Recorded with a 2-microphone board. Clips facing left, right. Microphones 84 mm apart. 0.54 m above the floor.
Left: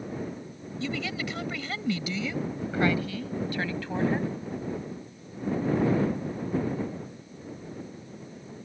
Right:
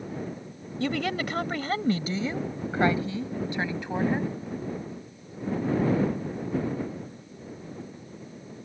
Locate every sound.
0.8 s a woman speaking: 60° right (ahead or behind); by 4.3 s 15° right (ahead or behind)